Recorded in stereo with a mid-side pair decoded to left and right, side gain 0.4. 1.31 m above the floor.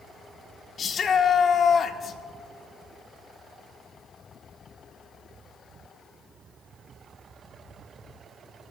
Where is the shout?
55° left, 1.5 m.